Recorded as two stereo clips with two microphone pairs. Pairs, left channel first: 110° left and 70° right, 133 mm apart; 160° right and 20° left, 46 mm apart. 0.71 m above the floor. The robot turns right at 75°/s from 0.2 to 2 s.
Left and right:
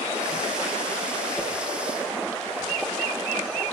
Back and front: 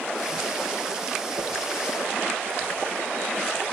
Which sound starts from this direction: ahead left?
A whoosh, at 1.4 s.